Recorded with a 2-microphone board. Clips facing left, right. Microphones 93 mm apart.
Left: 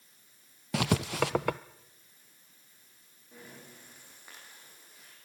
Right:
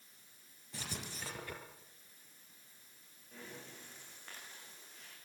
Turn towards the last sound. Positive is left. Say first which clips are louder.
# left 1 dB
turn(degrees=10)  # may be behind; listen again after turning